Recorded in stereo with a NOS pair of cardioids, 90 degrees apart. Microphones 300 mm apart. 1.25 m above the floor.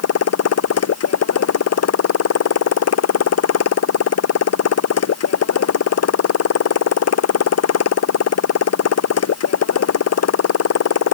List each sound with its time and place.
0.0 s a motorcycle: 55° left